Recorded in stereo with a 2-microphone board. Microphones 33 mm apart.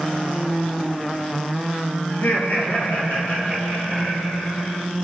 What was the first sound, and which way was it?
Laughter, 65° left (ahead or behind).